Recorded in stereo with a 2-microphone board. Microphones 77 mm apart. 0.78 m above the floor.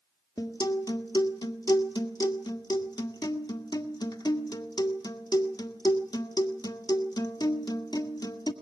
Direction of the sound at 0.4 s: 60° left (ahead or behind).